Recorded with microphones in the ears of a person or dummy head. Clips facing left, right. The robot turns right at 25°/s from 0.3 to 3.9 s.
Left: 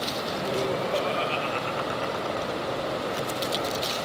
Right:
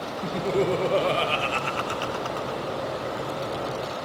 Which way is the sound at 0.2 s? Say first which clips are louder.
Right 5 dB; 120° right.